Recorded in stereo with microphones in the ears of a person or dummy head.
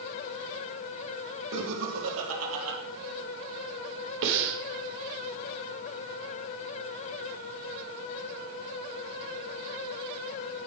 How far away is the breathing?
About 3 m.